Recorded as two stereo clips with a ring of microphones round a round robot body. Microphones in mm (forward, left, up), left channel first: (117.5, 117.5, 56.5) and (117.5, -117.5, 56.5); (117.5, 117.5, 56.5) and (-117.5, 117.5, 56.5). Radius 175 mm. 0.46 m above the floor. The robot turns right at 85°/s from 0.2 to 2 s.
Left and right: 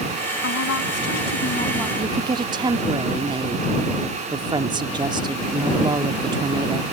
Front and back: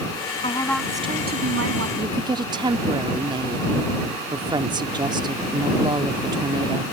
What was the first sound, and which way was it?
A woman speaking, 60° left.